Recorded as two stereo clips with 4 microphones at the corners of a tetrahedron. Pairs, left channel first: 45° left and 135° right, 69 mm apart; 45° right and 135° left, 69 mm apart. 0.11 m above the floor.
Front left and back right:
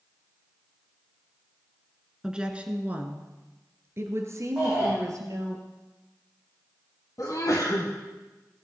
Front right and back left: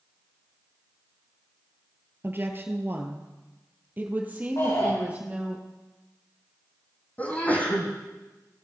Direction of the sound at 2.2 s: 150° left.